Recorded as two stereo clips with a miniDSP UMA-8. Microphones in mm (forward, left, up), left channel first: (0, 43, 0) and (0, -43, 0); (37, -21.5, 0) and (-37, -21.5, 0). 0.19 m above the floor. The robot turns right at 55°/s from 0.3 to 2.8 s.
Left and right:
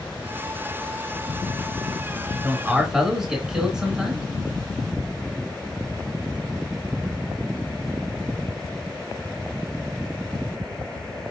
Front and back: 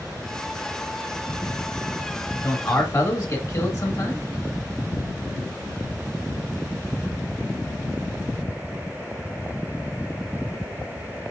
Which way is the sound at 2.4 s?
35° right.